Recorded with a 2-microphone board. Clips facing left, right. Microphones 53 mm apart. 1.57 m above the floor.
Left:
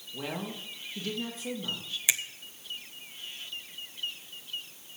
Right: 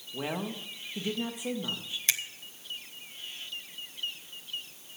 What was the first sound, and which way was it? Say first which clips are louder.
A woman speaking: right 2 dB; 20° right (ahead or behind).